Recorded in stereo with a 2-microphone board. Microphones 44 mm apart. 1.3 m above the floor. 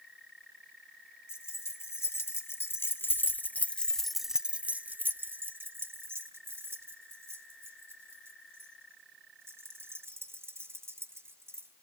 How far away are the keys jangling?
About 2.0 m.